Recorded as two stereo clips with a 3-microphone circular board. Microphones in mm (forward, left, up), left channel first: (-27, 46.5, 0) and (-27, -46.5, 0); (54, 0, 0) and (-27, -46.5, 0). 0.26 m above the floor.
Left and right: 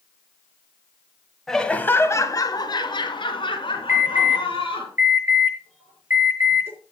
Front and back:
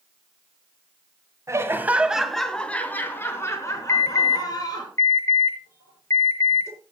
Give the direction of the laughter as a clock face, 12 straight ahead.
6 o'clock.